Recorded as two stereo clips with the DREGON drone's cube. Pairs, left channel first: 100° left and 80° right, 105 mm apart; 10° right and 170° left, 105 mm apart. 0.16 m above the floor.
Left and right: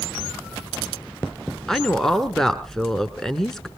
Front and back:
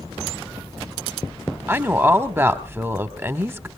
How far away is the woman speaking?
About 1.1 m.